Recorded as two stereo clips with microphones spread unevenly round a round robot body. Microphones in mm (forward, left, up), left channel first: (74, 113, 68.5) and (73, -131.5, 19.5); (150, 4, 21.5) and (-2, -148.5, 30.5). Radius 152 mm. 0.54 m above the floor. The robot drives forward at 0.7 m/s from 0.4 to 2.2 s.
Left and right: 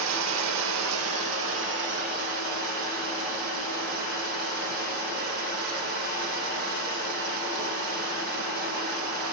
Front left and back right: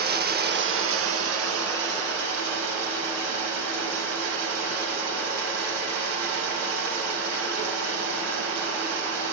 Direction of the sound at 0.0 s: 85° right.